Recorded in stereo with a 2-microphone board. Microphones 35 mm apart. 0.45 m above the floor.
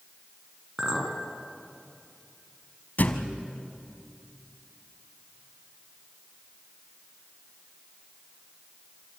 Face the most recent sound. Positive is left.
turn(degrees=55)  # may be behind; listen again after turning